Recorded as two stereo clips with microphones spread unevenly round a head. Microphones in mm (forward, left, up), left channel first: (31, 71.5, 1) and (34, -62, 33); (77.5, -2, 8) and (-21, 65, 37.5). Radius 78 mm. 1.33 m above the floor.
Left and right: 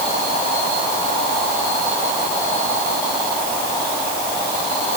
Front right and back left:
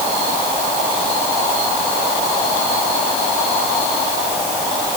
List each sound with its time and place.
Only background noise.